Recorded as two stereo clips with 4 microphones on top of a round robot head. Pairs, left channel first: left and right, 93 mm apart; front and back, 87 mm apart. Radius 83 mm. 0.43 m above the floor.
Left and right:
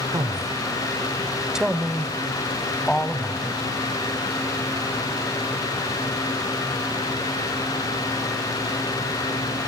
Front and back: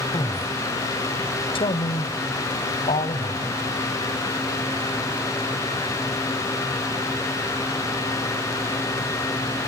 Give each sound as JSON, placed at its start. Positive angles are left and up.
{"t": 0.1, "sound": "a man speaking", "azimuth_deg": -45, "distance_m": 1.3}